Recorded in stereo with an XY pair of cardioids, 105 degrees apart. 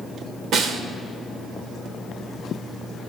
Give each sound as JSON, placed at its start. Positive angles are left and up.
{"t": 0.5, "sound": "a snare drum", "azimuth_deg": -70, "distance_m": 1.0}